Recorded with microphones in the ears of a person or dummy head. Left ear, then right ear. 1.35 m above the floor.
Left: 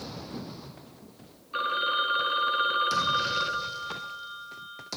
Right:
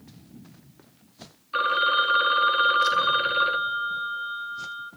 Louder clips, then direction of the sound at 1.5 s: Right 5 dB; 30° right (ahead or behind).